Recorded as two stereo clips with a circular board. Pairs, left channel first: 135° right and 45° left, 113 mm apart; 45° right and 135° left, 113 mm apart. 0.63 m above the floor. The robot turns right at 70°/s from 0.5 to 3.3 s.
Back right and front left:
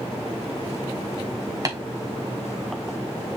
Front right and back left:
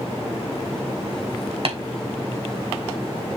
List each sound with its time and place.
1.6 s tapping: 105° left, 3 m; by 1.8 s 110° left, 3 m